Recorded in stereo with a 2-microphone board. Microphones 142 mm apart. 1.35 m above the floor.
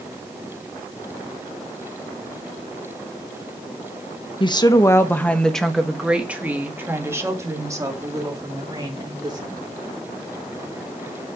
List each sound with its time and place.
4.4 s a woman speaking: 35° left (ahead or behind), 1.1 m; by 9.6 s 30° right (ahead or behind), 3.5 m